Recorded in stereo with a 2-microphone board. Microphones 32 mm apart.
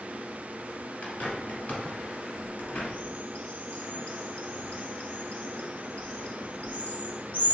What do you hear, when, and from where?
1.0 s a bird: 50° left (ahead or behind), 1.0 m